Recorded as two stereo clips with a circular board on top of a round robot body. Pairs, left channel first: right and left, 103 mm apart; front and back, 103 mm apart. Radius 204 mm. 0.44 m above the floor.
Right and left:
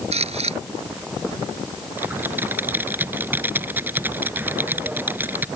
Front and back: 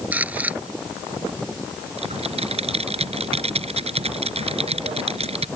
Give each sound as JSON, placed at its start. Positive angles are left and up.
{"t": 0.1, "sound": "a camera shutter", "azimuth_deg": 105}
{"t": 2.0, "sound": "typing on a keyboard", "azimuth_deg": 160}